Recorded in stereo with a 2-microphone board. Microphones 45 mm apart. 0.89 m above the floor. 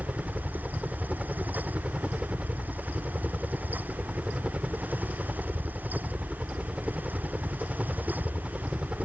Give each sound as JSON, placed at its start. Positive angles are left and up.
{"t": 0.0, "sound": "a helicopter", "side_deg": -25}